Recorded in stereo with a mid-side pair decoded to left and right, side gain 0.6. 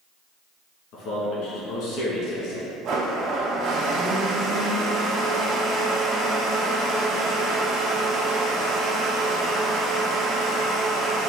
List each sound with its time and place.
0.9 s a man speaking: 70° left, 1.9 m
2.9 s a blender: 60° right, 1.0 m